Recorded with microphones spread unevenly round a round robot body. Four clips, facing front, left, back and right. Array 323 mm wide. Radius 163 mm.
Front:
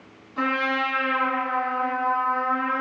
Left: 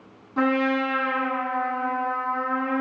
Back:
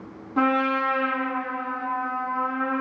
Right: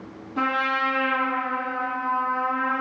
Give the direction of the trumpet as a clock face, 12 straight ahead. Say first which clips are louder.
Left 2 dB, back 3 dB; 6 o'clock.